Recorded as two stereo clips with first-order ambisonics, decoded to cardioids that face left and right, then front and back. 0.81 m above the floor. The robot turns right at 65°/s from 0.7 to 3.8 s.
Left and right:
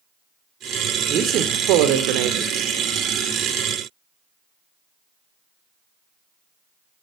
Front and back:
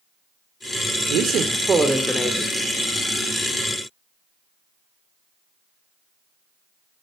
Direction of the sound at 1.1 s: 150° right.